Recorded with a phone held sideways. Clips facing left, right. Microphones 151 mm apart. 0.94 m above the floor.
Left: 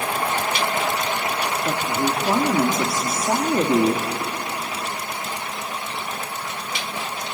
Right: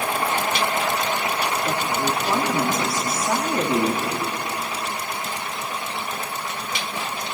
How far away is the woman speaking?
About 2.5 m.